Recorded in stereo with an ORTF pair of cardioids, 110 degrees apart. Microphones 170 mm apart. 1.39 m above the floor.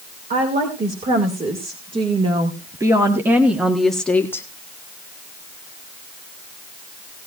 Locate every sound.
0.3 s a woman speaking: 45° right, 3 m; by 4.5 s 15° left, 1.3 m